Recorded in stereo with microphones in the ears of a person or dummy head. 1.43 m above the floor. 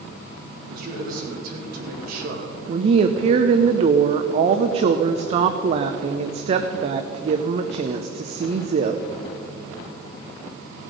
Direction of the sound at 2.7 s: 30° right (ahead or behind).